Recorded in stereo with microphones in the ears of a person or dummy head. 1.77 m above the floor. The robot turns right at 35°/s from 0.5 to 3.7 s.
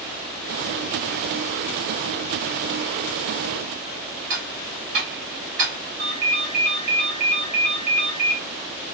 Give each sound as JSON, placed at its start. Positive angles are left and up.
{"t": 4.3, "sound": "ticking", "side_deg": -70, "distance_m": 2.0}
{"t": 6.0, "sound": "a ringtone", "side_deg": -40, "distance_m": 1.0}